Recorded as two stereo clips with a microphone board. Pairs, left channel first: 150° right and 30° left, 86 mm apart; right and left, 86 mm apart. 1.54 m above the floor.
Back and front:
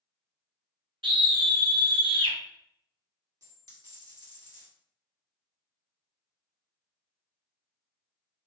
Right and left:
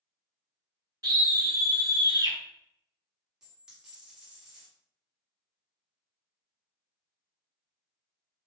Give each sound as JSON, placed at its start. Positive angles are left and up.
{"t": 1.0, "sound": "a scream", "azimuth_deg": 50, "distance_m": 0.9}
{"t": 3.4, "sound": "a dropped coin", "azimuth_deg": 10, "distance_m": 1.5}